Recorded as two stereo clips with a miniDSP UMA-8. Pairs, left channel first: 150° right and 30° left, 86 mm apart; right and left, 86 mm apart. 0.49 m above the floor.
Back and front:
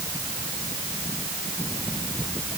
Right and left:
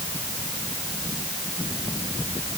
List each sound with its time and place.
Only background noise.